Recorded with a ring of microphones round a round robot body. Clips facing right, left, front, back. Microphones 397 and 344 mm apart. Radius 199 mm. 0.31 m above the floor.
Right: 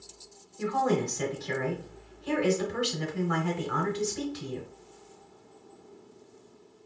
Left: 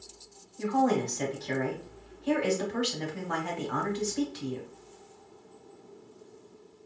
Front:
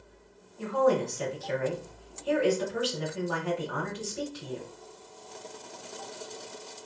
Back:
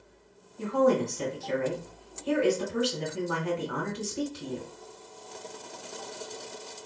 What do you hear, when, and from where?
0.6 s a woman speaking: 140° right, 1.1 m